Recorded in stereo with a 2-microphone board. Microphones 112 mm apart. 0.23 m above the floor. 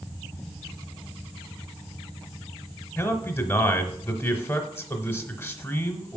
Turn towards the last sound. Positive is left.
turn(degrees=15)  # may be behind; listen again after turning